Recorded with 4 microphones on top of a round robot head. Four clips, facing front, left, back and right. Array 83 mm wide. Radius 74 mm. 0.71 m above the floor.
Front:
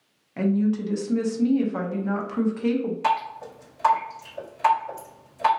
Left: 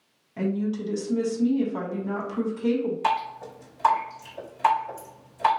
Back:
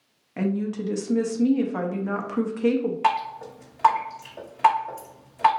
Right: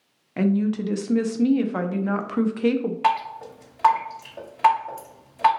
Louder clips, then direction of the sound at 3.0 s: Right 3 dB, back 1 dB; 120° right.